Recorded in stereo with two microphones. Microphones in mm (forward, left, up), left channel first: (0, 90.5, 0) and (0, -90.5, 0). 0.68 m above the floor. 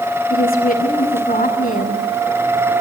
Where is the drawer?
I don't hear a drawer.